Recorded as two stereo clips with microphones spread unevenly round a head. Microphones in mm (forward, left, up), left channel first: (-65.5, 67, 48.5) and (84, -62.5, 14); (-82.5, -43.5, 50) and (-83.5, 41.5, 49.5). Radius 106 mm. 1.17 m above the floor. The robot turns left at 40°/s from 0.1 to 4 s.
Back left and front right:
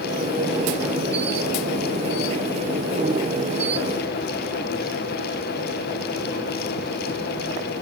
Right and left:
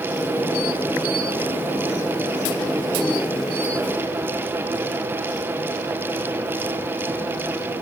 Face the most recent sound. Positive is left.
No sound to turn to.